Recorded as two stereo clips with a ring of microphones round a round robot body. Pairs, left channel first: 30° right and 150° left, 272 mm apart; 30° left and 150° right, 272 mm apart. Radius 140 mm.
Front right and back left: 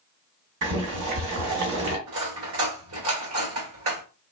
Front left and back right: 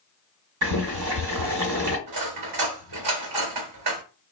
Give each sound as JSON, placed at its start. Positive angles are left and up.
{"t": 0.6, "sound": "boiling", "azimuth_deg": -175, "distance_m": 1.4}
{"t": 2.1, "sound": "cutlery clinking", "azimuth_deg": -165, "distance_m": 1.3}